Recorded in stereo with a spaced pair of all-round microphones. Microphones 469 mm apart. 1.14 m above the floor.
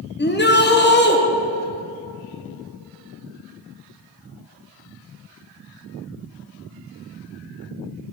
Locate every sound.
0.2 s a shout: 25° left (ahead or behind), 0.7 m